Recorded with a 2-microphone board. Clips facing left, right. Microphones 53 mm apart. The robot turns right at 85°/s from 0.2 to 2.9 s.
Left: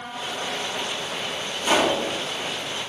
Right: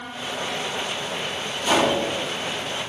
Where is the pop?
160° left, 1.2 m; by 2.0 s 165° right, 1.2 m.